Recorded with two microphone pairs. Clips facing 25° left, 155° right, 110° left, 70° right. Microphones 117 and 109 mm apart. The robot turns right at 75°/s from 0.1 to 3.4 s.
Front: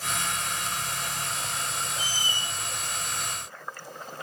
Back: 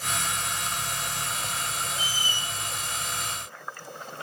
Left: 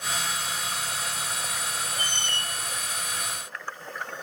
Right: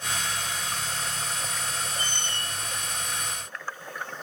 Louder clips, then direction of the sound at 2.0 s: Back 1 dB, left 1 dB; 60° left.